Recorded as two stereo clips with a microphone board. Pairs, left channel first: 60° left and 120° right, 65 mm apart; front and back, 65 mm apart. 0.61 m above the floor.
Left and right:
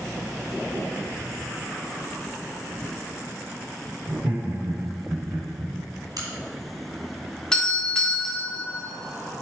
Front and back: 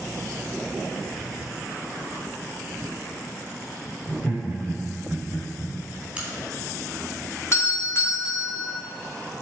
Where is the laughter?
80° right, 2.5 m; by 5.8 s 100° right, 3 m.